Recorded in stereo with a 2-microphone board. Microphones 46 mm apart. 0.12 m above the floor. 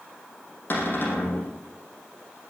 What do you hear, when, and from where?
0.7 s a cupboard door: 45° left (ahead or behind), 5.5 m